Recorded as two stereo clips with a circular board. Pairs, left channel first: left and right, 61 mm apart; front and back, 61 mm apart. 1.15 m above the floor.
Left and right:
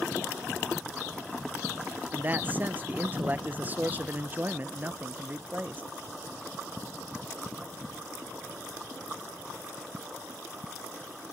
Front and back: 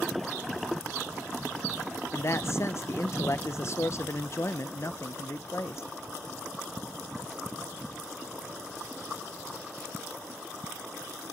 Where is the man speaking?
35° right, 0.8 m.